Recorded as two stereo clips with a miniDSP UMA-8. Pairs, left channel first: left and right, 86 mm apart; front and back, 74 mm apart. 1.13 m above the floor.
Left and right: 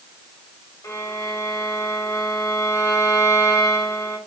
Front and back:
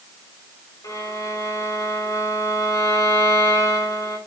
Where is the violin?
35° left, 5 m.